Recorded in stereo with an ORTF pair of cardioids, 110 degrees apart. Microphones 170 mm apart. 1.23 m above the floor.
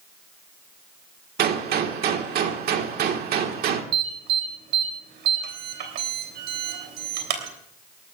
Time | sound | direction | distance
1.4 | a gunshot | 65° right | 1.6 m
3.9 | an alarm | 65° right | 3 m